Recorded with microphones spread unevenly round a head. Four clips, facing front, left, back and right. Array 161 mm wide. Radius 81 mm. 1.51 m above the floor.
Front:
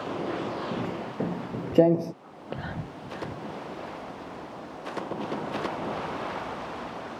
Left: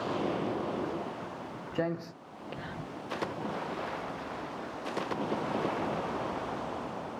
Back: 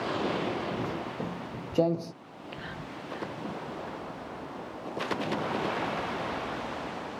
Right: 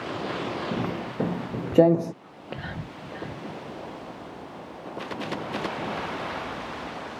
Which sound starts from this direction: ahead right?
Whispering, at 2.2 s.